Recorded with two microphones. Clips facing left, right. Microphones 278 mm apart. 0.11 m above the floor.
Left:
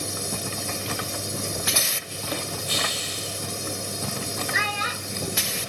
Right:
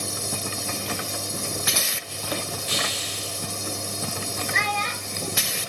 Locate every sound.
2.7 s a hiss: 80° right, 6.5 m
4.5 s a child speaking: 5° left (ahead or behind), 1.2 m